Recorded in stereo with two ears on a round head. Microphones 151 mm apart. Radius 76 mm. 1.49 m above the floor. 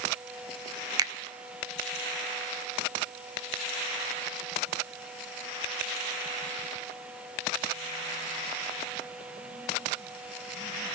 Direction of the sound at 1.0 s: 20° right (ahead or behind).